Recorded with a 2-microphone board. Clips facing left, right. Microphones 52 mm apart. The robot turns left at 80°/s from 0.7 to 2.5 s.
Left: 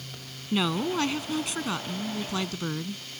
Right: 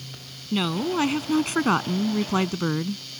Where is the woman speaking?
5° left; by 3.0 s 140° right.